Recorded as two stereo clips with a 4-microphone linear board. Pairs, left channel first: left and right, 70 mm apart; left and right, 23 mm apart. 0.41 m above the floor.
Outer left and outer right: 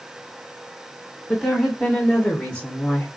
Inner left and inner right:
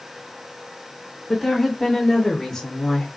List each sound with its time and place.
1.3 s a woman speaking: 5° left (ahead or behind), 1.2 m; by 3.1 s 20° left (ahead or behind), 0.8 m